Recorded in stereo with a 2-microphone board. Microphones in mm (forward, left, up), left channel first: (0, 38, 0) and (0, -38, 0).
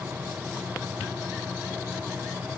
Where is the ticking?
I don't hear ticking.